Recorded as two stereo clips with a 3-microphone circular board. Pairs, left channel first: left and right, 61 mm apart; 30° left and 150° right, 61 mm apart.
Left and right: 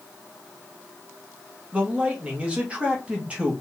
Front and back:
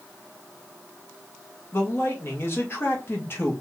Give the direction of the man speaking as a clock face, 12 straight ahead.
1 o'clock.